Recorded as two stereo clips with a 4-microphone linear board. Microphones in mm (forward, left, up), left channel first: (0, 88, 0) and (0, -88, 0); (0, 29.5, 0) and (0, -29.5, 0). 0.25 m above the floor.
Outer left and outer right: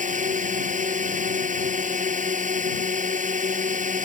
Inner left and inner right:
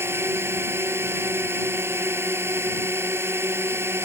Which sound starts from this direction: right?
A drone, at 0.0 s.